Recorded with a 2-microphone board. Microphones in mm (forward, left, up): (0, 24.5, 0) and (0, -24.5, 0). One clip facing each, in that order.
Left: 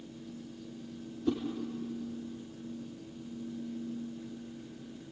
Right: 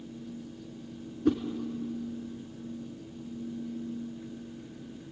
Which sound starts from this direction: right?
A whoosh, at 1.2 s.